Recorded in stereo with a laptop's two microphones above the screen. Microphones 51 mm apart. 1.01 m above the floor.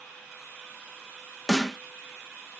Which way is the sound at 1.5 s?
5° left (ahead or behind).